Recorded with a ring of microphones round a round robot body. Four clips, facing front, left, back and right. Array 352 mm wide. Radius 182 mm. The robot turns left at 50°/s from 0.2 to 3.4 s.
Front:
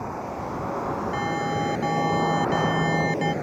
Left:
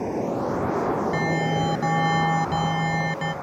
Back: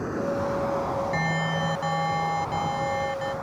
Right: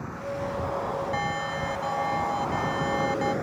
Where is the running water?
120° left; by 3.4 s 40° right.